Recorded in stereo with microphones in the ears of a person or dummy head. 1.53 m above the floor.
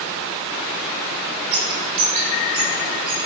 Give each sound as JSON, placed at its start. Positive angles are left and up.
{"t": 1.5, "sound": "a bird", "side_deg": -50, "distance_m": 5.5}